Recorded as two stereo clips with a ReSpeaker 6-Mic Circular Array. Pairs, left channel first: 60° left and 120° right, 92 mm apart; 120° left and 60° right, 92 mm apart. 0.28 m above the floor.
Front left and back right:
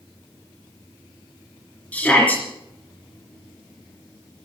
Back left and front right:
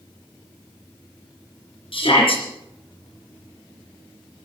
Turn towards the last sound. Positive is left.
turn(degrees=135)